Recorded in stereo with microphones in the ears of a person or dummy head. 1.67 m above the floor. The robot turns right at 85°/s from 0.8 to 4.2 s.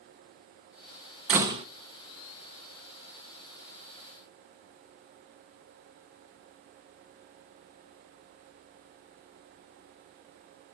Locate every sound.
1.3 s a door slam: 170° right, 1.1 m; by 1.6 s 140° right, 1.1 m